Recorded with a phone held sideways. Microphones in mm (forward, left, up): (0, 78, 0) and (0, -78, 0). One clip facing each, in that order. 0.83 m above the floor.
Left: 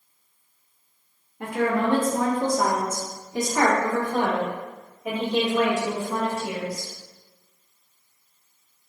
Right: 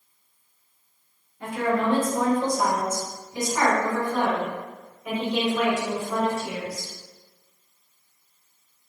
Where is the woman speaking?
65° left (ahead or behind), 1.0 m; by 6.9 s 35° left (ahead or behind), 3.5 m.